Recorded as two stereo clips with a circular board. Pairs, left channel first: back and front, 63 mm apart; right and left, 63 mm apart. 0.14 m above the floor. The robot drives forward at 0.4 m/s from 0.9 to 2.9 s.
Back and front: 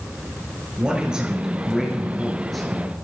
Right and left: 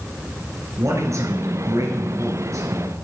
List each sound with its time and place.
0.8 s a man speaking: 70° left, 2.5 m; by 2.9 s 95° left, 2.5 m